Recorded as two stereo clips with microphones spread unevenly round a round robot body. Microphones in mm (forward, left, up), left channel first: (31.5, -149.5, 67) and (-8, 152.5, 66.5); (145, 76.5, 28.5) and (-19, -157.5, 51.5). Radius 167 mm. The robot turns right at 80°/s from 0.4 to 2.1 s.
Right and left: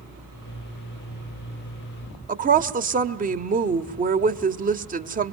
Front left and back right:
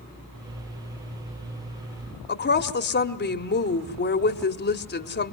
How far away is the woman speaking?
About 1.4 m.